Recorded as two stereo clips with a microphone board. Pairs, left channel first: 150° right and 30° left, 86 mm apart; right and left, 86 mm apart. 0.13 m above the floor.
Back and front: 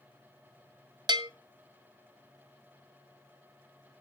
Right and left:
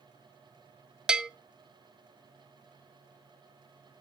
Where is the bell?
10° left, 0.5 m.